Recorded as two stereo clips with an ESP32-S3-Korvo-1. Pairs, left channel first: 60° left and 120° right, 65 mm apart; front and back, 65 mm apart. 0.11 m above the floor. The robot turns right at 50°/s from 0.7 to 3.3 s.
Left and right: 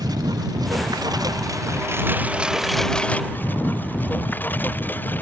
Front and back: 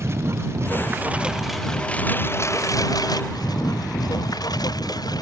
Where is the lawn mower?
130° right; by 5.2 s straight ahead.